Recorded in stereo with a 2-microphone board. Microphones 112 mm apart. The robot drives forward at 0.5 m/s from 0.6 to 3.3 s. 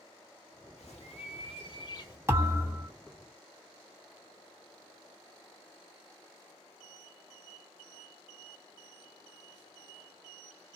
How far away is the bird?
About 0.7 m.